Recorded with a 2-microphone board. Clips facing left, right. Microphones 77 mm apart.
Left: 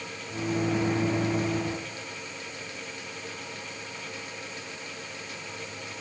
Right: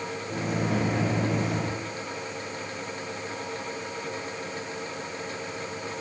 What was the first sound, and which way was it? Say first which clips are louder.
A microwave: left 1 dB; 60° right (ahead or behind).